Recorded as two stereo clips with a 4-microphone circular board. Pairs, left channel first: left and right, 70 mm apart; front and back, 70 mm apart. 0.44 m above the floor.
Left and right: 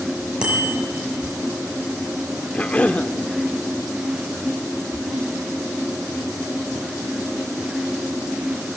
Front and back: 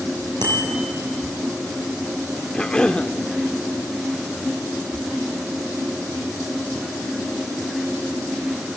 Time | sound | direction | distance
0.4 | a bicycle bell | 165° right | 8 m
2.5 | a cough | 55° left | 0.8 m